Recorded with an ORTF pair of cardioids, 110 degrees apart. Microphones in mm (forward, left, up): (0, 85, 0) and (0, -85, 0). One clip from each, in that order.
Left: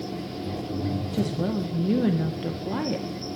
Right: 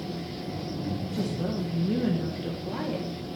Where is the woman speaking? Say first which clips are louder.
Left 3 dB; 30° left, 1.5 m.